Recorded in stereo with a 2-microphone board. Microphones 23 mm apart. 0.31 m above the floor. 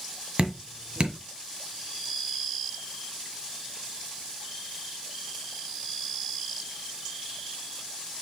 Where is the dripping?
50° right (ahead or behind), 1.6 m.